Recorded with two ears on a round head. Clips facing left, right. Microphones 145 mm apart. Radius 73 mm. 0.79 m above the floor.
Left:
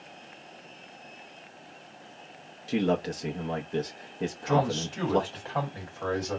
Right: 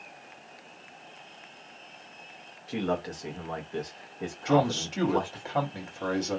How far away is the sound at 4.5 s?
About 1.7 m.